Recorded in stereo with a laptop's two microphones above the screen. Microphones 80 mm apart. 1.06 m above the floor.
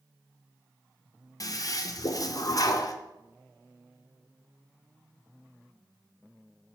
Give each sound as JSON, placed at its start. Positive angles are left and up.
{"t": 1.4, "sound": "a toilet flushing", "side_deg": 45, "distance_m": 0.5}